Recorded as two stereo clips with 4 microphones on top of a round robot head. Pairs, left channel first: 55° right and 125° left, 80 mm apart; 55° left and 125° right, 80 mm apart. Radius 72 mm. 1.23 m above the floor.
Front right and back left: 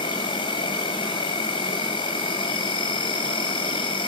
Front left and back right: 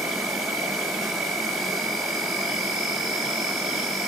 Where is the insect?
40° right, 4 m.